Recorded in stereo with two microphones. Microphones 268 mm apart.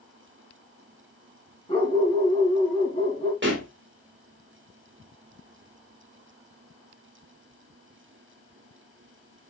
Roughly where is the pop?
Right.